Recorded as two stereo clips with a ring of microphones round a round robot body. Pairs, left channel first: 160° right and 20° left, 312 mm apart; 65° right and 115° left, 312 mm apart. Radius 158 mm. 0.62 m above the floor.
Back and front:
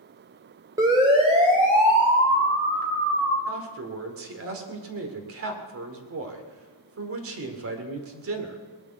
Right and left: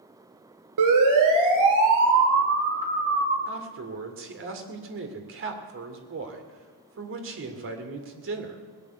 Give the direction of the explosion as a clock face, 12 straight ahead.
I don't hear an explosion.